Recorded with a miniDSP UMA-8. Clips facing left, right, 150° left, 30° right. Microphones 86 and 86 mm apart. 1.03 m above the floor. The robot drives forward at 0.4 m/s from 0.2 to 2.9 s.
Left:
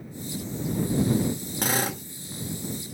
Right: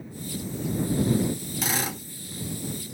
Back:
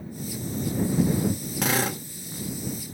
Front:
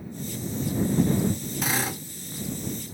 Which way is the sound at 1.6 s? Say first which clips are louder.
Left 4 dB, back 4 dB; 130° left.